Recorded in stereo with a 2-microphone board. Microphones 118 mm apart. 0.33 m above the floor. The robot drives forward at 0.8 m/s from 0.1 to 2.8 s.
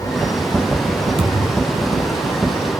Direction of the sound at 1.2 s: 50° right (ahead or behind).